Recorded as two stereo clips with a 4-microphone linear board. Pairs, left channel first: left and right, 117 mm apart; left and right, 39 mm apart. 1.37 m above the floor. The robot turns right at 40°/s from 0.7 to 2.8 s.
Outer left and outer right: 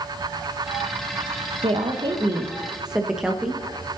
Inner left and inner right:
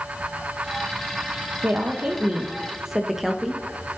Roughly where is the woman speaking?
Ahead right.